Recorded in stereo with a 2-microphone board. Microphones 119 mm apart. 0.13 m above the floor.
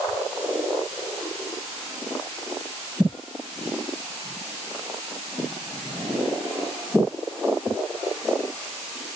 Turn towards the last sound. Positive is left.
No sound to turn to.